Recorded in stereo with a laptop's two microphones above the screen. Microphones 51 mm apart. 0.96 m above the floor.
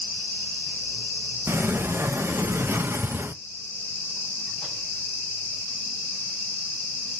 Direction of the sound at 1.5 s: 50° right (ahead or behind).